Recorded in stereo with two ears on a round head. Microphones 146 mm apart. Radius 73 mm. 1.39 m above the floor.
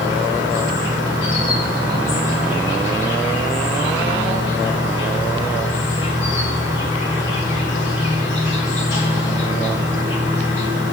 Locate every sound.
0.0 s an insect: 85° left, 3.5 m